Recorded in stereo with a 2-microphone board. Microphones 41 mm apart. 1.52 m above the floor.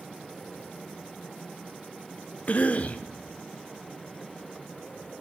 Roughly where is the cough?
Left.